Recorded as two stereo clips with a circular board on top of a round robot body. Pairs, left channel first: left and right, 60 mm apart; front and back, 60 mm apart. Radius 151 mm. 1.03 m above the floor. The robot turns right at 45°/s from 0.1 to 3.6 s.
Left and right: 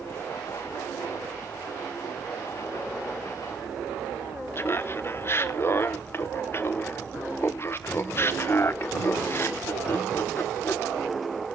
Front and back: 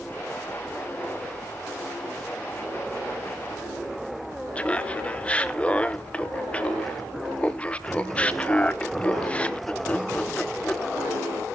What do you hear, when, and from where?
4.5 s laughter: 60° left, 0.9 m